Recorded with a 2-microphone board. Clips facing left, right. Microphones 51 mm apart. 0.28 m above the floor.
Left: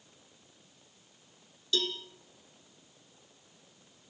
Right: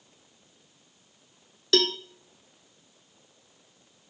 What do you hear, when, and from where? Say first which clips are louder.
1.7 s a cowbell: right 9 dB; 75° right (ahead or behind), 0.9 m